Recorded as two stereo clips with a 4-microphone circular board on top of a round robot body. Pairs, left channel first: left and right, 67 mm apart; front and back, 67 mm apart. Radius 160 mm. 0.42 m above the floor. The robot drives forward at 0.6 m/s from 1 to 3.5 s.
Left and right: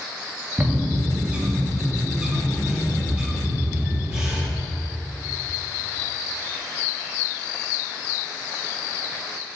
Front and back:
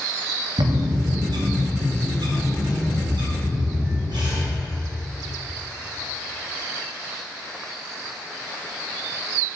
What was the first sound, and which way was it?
A bird, 160° right.